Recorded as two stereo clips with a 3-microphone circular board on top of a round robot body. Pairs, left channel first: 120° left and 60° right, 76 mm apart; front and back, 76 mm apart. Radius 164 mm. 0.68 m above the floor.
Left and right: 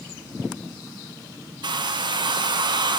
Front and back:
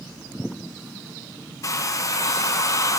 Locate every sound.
1.6 s a hair dryer: 45° right, 0.6 m